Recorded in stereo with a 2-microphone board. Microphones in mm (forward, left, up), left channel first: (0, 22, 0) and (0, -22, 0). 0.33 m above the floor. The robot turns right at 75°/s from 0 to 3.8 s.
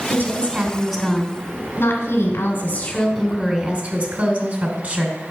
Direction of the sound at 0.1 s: 60° right.